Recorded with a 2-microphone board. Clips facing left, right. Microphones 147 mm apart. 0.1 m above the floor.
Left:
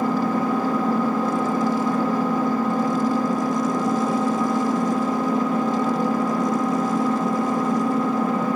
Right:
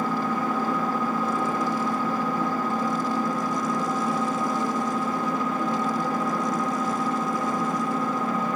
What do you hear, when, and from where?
0.0 s an engine running: 65° left (ahead or behind), 4 m